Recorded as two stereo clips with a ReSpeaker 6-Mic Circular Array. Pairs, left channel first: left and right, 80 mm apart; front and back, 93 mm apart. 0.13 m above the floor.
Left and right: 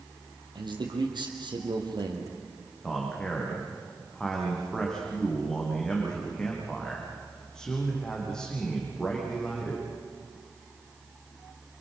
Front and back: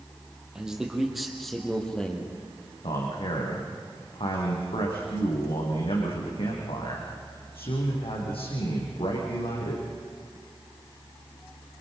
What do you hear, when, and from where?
0.6 s a man speaking: 95° right, 5 m; by 2.3 s 75° right, 4.5 m
2.8 s a man speaking: 10° left, 7 m